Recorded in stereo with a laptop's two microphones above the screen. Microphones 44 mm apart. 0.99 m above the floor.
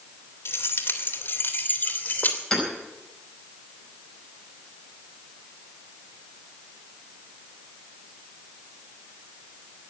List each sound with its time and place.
0.5 s keys jangling: 65° left (ahead or behind), 2 m; by 2.4 s 40° left (ahead or behind), 2.5 m
2.5 s hammering: 5° left (ahead or behind), 5 m